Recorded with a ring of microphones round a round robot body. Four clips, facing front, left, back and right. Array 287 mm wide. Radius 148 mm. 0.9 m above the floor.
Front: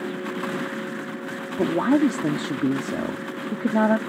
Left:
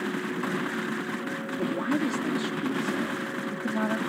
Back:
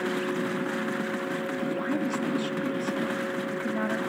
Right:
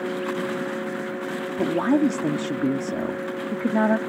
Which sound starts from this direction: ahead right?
A man speaking, at 1.6 s.